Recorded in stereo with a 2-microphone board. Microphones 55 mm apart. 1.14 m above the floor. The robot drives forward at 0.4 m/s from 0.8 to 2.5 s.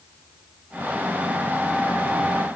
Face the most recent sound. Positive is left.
No sound to turn to.